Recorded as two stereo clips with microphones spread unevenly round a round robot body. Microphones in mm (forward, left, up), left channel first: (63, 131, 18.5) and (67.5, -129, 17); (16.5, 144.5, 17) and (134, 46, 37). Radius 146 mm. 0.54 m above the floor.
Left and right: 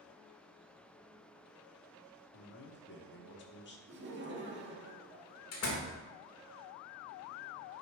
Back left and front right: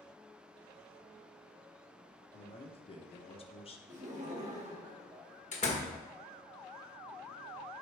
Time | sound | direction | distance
2.3 | a man speaking | 120° left | 1.1 m
3.9 | laughter | 70° right | 1.6 m
5.5 | a door slam | 115° left | 1.3 m